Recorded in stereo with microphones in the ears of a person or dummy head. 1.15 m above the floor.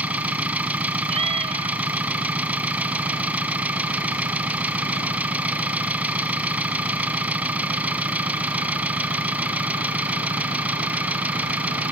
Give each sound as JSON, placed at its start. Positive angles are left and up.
{"t": 0.0, "sound": "an engine running", "side_deg": -10}
{"t": 1.1, "sound": "a cat meowing", "side_deg": -30}